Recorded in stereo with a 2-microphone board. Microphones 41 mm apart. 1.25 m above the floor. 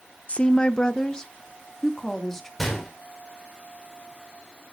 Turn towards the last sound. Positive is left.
turn(degrees=0)  # may be behind; listen again after turning